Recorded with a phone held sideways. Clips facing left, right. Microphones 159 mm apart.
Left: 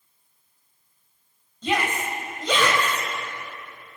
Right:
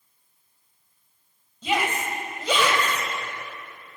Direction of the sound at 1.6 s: 10° right (ahead or behind).